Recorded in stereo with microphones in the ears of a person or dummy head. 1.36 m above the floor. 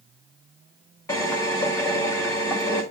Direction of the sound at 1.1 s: 20° left (ahead or behind).